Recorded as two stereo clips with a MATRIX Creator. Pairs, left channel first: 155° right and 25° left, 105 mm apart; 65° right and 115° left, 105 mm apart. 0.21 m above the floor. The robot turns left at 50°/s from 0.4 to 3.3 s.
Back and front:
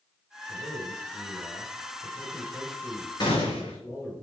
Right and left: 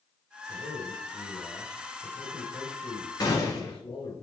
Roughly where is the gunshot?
Behind right.